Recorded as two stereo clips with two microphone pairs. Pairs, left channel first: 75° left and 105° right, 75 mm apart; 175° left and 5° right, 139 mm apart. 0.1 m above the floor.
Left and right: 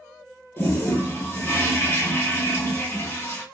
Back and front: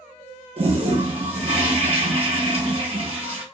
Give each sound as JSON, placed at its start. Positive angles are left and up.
{"t": 0.6, "sound": "a toilet flushing", "azimuth_deg": 25, "distance_m": 1.0}